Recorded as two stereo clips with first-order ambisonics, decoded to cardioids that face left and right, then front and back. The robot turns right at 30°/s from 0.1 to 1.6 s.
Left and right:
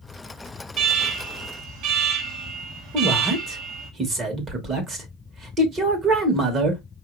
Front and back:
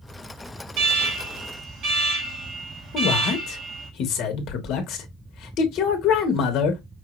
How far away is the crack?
No crack in this recording.